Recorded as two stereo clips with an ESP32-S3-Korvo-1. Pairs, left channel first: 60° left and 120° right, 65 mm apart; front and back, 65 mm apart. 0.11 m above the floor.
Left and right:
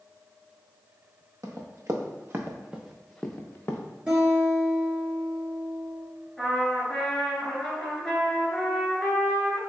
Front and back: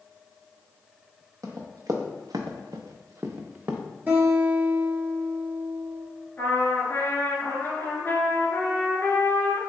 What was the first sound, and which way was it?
Running footsteps, 150° right.